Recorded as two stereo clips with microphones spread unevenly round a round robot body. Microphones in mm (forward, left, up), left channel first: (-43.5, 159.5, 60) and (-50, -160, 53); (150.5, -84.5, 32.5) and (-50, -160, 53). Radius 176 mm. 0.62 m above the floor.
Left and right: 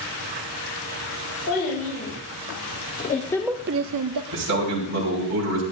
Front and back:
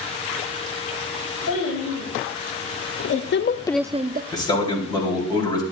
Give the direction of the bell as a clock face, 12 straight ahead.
I don't hear a bell.